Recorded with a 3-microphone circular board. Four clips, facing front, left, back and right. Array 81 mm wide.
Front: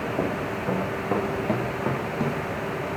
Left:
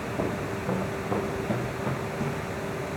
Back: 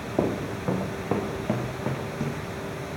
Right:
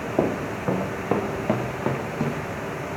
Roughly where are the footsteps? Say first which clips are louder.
Right 7 dB, back 5 dB; right.